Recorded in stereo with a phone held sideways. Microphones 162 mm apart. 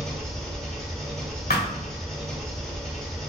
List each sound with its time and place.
0.0 s an engine running: centre (ahead or behind), 1.3 m
1.5 s a thud: 70° left (ahead or behind), 1.3 m